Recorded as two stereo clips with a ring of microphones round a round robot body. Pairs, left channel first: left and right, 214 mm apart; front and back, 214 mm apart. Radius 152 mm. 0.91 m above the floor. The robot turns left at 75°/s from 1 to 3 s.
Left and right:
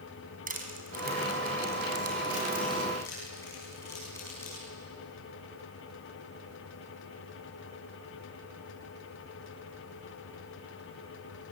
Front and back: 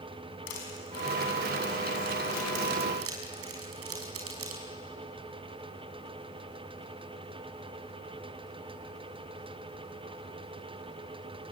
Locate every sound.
0.5 s crushing: 40° right, 5 m; by 4.6 s 170° left, 5 m